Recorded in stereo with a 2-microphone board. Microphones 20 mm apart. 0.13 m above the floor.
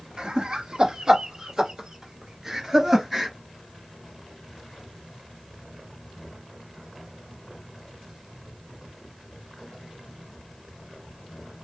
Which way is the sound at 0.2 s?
45° right (ahead or behind).